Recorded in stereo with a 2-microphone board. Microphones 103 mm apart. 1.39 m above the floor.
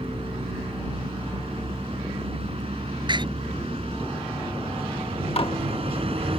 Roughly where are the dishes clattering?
Left.